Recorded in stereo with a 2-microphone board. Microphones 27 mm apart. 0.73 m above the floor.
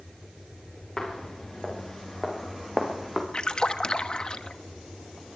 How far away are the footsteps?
About 7 m.